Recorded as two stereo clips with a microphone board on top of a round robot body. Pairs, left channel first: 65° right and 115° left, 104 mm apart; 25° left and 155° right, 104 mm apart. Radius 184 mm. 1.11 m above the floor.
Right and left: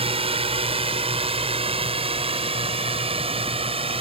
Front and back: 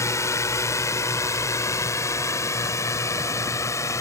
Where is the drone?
85° left.